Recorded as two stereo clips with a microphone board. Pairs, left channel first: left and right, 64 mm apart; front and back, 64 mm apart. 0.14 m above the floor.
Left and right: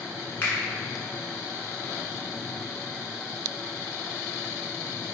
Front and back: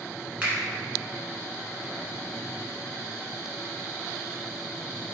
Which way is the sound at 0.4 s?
125° left.